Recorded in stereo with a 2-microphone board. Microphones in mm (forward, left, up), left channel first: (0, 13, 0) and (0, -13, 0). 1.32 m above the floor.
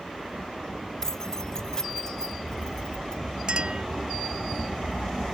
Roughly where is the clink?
Right.